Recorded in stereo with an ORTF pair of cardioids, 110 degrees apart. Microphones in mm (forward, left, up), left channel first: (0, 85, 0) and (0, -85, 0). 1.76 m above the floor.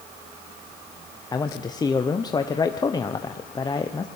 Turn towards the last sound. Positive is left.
turn(degrees=25)